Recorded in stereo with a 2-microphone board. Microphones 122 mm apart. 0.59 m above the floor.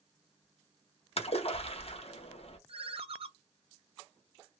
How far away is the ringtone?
About 0.5 m.